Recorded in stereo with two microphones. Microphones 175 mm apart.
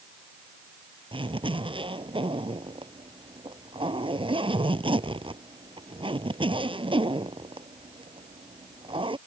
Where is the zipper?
30° right (ahead or behind).